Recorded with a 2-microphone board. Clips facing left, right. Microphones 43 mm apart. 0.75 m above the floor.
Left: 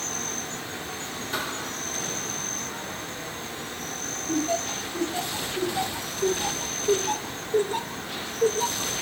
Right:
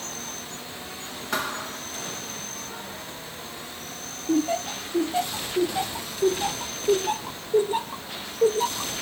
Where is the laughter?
20° right (ahead or behind), 0.5 m.